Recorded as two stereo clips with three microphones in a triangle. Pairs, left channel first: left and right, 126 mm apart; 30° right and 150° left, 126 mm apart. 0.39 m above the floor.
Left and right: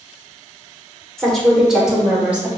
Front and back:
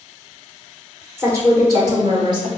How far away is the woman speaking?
About 0.9 m.